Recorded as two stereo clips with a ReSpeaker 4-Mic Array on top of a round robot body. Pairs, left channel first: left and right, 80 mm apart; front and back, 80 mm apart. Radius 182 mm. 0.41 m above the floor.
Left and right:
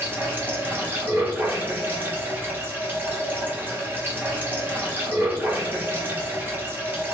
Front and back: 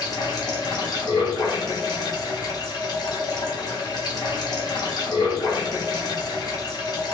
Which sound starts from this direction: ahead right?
Running water, at 0.0 s.